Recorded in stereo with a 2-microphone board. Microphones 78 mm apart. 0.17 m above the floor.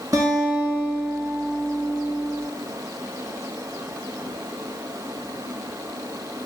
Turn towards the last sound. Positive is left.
turn(degrees=-55)  # may be behind; listen again after turning